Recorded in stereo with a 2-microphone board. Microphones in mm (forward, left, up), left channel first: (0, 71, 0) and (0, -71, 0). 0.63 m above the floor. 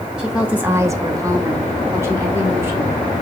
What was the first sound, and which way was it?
A woman speaking, centre (ahead or behind).